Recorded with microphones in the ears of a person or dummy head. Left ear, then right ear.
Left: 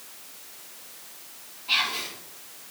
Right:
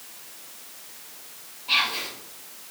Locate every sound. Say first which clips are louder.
1.7 s whispering: right 2 dB; centre (ahead or behind), 0.8 m